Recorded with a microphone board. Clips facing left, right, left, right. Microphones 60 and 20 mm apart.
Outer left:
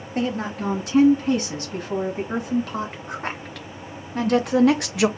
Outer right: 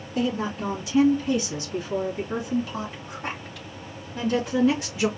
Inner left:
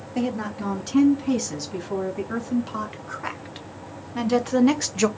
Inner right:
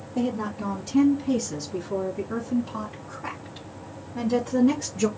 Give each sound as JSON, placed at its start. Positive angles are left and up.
{"t": 0.1, "sound": "a woman speaking", "side_deg": 55, "distance_m": 3.5}